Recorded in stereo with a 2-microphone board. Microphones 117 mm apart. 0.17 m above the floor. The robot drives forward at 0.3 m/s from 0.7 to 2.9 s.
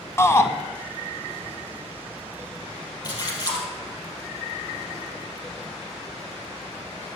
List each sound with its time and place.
0.2 s a shout: 20° left (ahead or behind), 1.1 m
3.0 s a splash: 35° left (ahead or behind), 4 m